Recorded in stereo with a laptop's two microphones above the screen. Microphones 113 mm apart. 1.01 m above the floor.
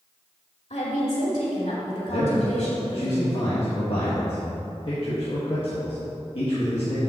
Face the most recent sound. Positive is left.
turn(degrees=55)  # may be behind; listen again after turning